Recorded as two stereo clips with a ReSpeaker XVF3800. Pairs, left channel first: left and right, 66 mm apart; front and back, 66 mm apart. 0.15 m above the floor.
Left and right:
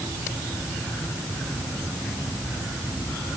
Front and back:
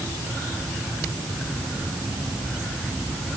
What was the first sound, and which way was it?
Only background noise.